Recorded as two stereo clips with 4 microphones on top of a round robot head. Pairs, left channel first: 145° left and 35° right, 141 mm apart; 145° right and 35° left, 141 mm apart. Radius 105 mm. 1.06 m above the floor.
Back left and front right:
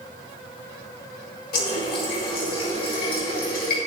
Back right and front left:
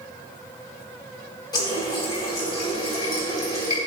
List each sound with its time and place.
1.5 s a running tap: 155° left, 4.5 m